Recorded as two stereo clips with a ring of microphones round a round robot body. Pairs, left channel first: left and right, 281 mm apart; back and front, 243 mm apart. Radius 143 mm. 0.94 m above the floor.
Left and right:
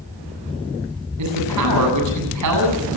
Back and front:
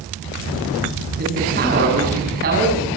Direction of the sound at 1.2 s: 60° right.